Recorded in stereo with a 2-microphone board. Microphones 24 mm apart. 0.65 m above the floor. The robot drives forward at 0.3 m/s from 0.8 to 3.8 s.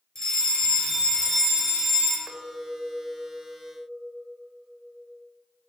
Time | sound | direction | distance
0.1 | a fire alarm | 20° left (ahead or behind) | 3 m
2.3 | a clink | 80° right | 1.2 m